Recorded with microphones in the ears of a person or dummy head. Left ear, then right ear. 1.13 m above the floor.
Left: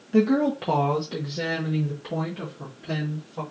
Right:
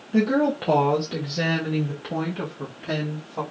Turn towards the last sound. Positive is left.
turn(degrees=-60)  # may be behind; listen again after turning